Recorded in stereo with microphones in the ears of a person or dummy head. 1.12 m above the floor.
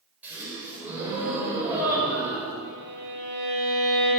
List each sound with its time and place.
0.2 s a gasp: 10° right (ahead or behind), 6 m
2.6 s a violin: 50° right (ahead or behind), 5 m